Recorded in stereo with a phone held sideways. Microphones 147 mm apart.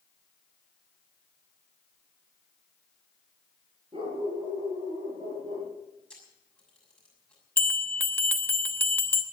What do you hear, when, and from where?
3.9 s a dog barking: 35° right (ahead or behind), 6 m; by 5.7 s 30° right (ahead or behind), 6.5 m
6.1 s a camera shutter: 5° left (ahead or behind), 6.5 m
7.6 s a bell: 15° left (ahead or behind), 1.1 m